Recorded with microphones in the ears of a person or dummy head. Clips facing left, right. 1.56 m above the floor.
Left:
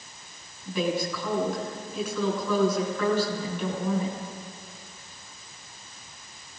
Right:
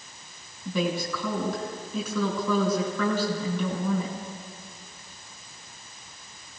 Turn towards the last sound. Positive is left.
turn(degrees=-85)